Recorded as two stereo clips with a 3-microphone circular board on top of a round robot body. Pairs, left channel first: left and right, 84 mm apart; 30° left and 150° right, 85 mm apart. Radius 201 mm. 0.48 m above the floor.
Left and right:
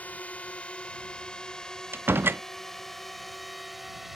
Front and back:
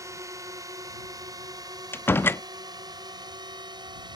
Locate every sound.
0.0 s a drone: 160° left; by 4.2 s 175° right
1.9 s a door slam: 30° right